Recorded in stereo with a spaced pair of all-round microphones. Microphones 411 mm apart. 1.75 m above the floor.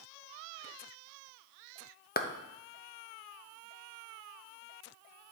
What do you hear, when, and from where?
2.2 s a clap: 25° left (ahead or behind), 0.6 m